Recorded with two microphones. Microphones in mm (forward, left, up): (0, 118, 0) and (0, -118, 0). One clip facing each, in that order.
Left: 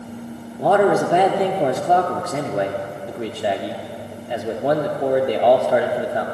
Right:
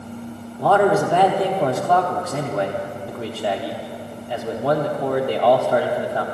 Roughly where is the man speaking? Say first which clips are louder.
Left 1 dB; centre.